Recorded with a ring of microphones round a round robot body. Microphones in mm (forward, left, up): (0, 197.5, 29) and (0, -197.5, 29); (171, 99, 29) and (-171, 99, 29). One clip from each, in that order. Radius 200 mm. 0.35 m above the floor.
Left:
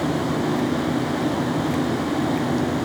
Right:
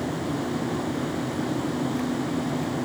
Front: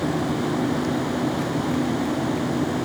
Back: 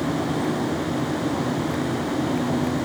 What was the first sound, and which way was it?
Only background noise.